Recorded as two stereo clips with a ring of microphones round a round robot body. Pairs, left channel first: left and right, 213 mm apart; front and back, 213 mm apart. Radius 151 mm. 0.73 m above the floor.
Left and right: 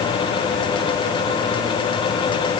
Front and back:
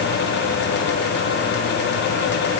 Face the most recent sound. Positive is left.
No sound to turn to.